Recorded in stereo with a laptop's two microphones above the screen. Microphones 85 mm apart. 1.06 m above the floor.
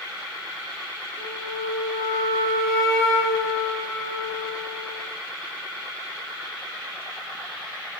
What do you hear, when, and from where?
1.2 s a flute: 15° left (ahead or behind), 4.5 m